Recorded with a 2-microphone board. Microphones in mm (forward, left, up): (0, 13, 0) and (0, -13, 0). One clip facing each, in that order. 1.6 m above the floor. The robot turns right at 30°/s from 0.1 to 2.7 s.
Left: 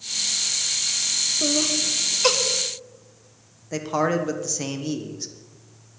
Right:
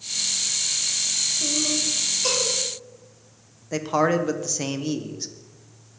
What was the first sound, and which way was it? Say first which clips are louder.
Laughter: left 2 dB; 70° left (ahead or behind).